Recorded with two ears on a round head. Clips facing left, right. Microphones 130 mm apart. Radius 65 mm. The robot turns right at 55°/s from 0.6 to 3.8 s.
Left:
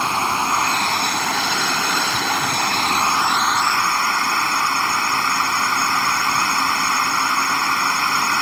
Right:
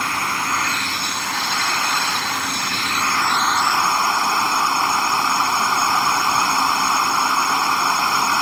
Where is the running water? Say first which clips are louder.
Left 3 dB; 20° left; by 8.4 s 165° right.